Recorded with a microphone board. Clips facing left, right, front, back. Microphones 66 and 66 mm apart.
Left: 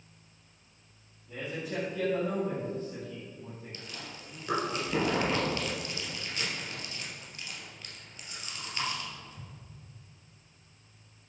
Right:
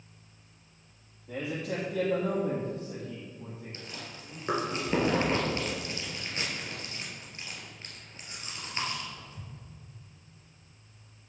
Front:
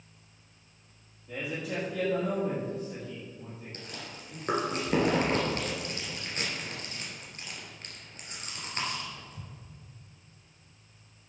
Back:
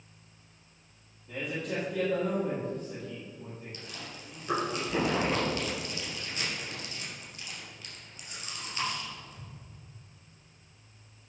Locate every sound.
1.3 s a man speaking: 85° right, 3.5 m
3.7 s chewing: 35° right, 3 m